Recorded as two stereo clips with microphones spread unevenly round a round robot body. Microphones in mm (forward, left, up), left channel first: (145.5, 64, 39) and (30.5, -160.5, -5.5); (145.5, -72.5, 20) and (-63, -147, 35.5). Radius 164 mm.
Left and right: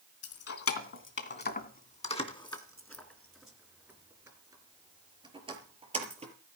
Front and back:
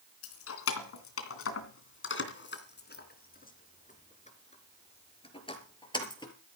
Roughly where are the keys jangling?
Ahead left.